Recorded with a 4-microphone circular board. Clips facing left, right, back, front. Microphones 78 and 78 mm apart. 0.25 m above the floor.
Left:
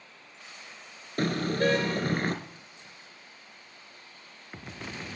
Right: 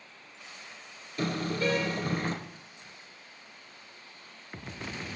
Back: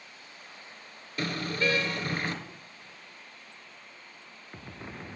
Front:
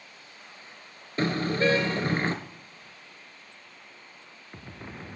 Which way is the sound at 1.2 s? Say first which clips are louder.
Left 3 dB, front 5 dB; 60° left.